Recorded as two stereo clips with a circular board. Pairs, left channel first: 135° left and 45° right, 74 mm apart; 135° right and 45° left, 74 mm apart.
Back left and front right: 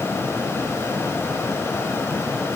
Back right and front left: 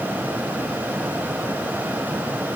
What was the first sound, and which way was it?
Only background noise.